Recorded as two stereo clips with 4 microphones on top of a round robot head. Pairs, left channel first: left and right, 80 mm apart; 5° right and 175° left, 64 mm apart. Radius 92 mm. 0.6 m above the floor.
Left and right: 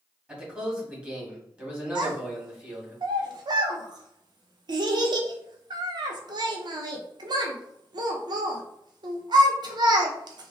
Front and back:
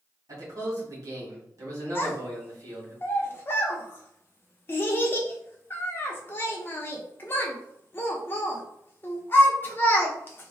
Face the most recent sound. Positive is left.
turn(degrees=-65)